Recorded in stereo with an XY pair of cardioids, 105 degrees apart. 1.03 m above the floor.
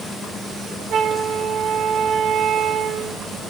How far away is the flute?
About 1.8 m.